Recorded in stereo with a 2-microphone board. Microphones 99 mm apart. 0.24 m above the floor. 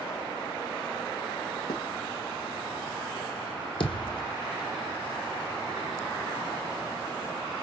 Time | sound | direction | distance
1.7 | writing | 45° left (ahead or behind) | 1.6 m
3.8 | a thud | 60° left (ahead or behind) | 2.0 m